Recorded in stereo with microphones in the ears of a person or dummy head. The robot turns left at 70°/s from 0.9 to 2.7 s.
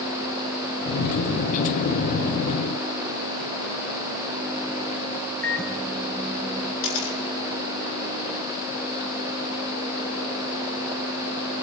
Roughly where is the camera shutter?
Left.